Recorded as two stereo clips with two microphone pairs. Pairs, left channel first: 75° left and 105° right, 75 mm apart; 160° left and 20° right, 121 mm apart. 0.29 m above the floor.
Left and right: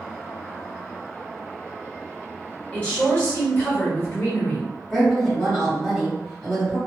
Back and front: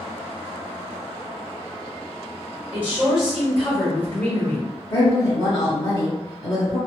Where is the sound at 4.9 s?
155° left, 1.8 m.